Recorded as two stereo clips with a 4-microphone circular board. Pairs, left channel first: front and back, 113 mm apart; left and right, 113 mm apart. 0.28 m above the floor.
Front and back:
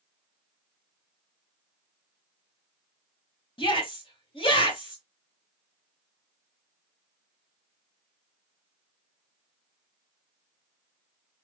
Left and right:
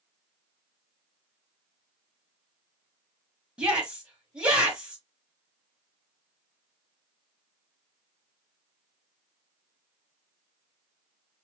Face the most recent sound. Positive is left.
turn(degrees=-10)